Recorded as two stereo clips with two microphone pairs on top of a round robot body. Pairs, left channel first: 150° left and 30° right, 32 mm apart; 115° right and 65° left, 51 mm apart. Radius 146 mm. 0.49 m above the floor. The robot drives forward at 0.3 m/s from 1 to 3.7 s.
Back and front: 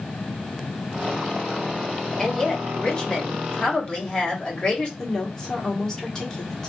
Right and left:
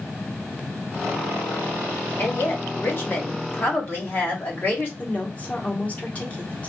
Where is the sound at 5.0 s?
150° right, 1.2 m.